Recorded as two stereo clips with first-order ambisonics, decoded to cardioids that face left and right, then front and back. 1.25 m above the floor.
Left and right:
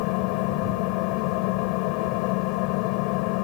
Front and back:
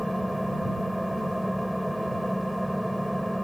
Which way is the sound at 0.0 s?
90° left.